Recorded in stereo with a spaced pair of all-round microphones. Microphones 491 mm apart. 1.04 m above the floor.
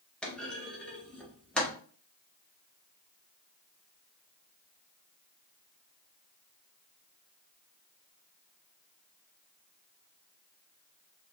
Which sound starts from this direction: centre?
A clunk, at 0.2 s.